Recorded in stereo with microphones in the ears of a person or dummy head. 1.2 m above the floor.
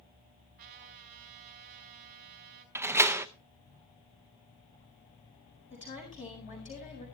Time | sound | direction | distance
0.6 | a trumpet | 45° right (ahead or behind) | 2.5 m
2.8 | a door slam | 10° right (ahead or behind) | 0.6 m
5.7 | a woman speaking | 40° left (ahead or behind) | 7 m